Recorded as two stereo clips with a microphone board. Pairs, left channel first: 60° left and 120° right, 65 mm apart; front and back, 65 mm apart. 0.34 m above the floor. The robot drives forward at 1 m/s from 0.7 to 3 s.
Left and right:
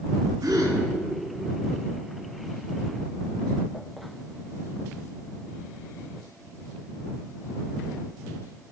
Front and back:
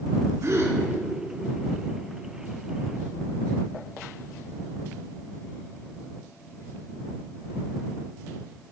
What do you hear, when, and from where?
0.4 s a gasp: 140° right, 2.5 m